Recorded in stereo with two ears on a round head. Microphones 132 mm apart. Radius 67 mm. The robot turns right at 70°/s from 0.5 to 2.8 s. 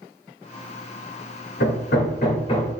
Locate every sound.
1.6 s hammering: 85° left, 1.4 m; by 2.7 s 20° left (ahead or behind), 1.4 m